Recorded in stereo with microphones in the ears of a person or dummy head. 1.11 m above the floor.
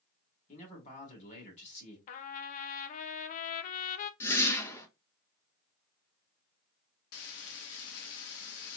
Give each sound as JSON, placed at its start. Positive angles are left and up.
{"t": 0.5, "sound": "a man speaking", "side_deg": 40, "distance_m": 3.0}
{"t": 2.1, "sound": "a trumpet", "side_deg": 45, "distance_m": 0.6}
{"t": 4.2, "sound": "a whoosh", "side_deg": 15, "distance_m": 1.2}
{"t": 7.1, "sound": "frying", "side_deg": 70, "distance_m": 1.1}